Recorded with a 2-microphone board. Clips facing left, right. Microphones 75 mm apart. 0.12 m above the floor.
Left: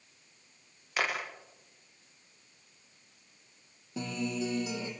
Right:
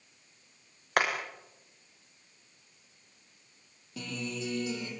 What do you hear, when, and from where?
1.0 s hammering: 55° right (ahead or behind), 6.5 m
4.0 s a guitar: 20° left (ahead or behind), 6 m